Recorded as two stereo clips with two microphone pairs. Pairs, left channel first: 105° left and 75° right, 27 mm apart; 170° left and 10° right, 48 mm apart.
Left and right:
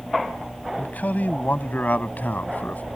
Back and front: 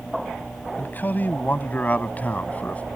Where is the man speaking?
115° left; by 2.8 s 105° left.